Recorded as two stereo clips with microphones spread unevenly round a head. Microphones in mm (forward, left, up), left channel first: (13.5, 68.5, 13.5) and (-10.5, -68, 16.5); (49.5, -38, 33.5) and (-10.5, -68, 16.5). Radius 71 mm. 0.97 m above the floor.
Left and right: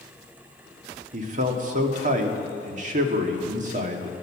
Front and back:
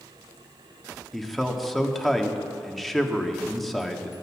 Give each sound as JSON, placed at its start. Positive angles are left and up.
{"t": 1.1, "sound": "a man speaking", "azimuth_deg": -60, "distance_m": 1.7}